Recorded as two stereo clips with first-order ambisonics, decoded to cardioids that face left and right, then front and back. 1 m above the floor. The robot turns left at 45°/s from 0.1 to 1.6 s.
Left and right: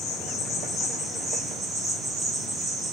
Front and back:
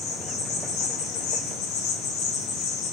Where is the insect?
60° left, 1.0 m; by 2.9 s 10° right, 1.0 m.